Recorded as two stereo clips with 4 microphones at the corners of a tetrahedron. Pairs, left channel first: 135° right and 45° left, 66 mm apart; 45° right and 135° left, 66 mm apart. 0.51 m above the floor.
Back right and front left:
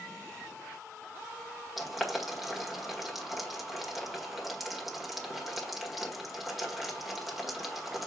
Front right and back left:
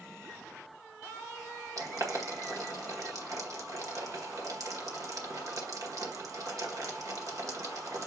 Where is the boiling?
130° left, 1.8 m.